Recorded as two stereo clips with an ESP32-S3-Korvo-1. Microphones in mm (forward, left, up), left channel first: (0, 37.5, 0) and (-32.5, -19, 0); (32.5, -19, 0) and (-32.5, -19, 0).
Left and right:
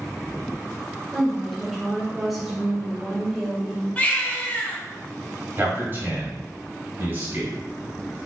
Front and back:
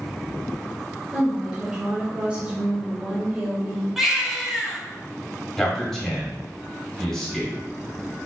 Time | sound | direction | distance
1.1 | a woman speaking | 150° left | 0.8 m
4.0 | a baby crying | 100° left | 0.6 m
5.6 | a man speaking | 80° right | 1.3 m